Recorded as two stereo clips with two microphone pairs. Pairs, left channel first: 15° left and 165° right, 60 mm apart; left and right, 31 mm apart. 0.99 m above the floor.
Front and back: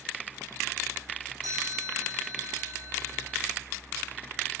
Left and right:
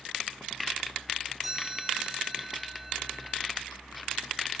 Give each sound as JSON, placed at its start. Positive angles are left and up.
{"t": 1.4, "sound": "a chime", "azimuth_deg": 180, "distance_m": 9.5}